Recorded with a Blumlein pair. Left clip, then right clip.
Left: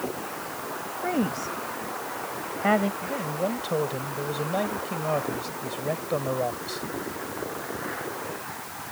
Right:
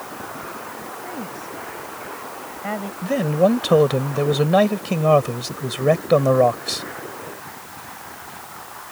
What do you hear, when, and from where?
1.0 s a woman speaking: 65° left; by 2.9 s 75° left
3.0 s a man speaking: 60° right